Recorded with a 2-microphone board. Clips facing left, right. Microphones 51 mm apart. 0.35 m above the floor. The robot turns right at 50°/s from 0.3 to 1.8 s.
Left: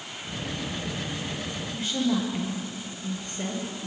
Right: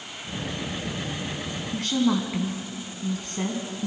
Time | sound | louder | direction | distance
1.7 | a woman speaking | right 3 dB | 65° right (ahead or behind) | 4 m